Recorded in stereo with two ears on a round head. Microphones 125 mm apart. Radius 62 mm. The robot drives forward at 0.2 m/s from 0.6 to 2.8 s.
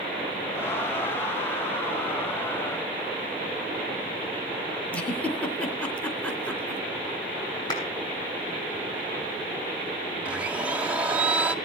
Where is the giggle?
10° left (ahead or behind), 2.5 m.